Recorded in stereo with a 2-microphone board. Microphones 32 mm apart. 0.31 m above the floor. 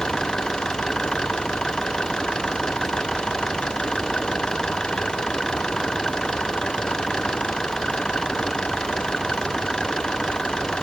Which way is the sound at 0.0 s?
20° left (ahead or behind).